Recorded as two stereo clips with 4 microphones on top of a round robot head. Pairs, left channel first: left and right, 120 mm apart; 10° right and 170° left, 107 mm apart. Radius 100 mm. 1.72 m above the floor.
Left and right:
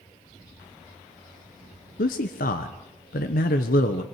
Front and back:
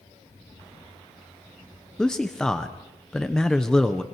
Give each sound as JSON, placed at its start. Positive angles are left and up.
{"t": 2.0, "sound": "a man speaking", "azimuth_deg": 75, "distance_m": 1.0}